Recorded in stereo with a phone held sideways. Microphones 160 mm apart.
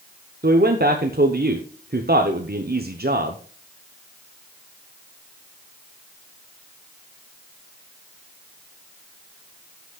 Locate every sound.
0.4 s a man speaking: 70° right (ahead or behind), 0.9 m